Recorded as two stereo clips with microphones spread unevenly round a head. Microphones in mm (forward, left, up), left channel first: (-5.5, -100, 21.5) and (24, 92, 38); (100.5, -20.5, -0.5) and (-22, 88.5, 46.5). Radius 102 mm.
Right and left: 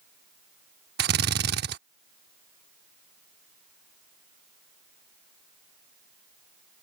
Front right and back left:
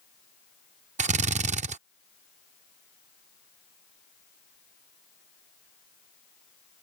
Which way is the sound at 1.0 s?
115° left.